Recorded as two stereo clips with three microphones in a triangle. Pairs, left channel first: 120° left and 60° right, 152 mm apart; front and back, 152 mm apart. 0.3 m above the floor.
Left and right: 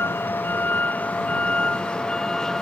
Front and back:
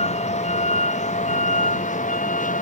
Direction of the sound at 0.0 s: 45° left.